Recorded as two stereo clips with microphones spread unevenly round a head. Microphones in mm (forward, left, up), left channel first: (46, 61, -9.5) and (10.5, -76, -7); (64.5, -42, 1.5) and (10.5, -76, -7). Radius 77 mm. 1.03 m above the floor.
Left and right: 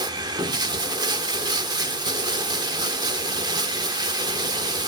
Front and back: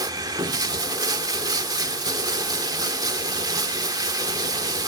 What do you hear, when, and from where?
0.0 s running water: 160° right, 0.8 m